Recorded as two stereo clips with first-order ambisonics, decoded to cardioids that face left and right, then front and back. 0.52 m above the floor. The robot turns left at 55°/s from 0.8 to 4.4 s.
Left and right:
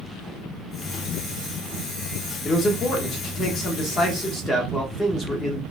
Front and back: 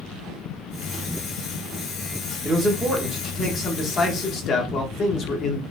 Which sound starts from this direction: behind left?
A man speaking, at 2.5 s.